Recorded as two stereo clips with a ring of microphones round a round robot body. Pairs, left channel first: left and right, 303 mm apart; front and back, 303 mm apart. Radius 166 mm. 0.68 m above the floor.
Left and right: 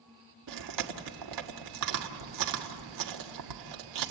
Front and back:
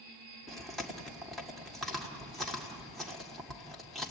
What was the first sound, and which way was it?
Chewing, 90° right.